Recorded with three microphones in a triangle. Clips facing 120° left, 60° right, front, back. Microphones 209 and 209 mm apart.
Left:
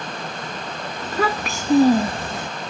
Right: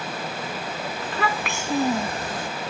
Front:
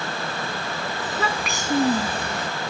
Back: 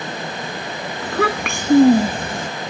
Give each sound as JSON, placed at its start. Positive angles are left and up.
{"t": 1.0, "sound": "a child speaking", "azimuth_deg": 165}